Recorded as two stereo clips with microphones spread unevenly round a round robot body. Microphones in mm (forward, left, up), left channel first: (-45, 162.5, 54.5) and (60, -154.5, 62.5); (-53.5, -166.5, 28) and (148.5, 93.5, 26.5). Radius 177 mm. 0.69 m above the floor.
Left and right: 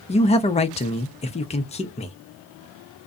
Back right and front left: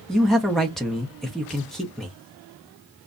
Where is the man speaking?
145° left, 0.6 m.